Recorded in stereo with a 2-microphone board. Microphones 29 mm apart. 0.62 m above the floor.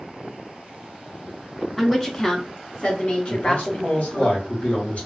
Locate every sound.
1.8 s a woman speaking: 5° left (ahead or behind), 0.7 m; by 4.3 s 50° left (ahead or behind), 1.5 m
3.3 s a man speaking: 55° left (ahead or behind), 1.9 m